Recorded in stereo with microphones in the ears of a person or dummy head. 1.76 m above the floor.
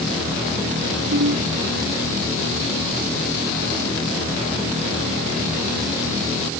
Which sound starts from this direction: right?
A ringtone, at 1.1 s.